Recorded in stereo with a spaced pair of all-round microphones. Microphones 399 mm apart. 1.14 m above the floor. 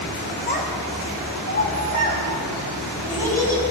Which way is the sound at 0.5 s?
25° left (ahead or behind).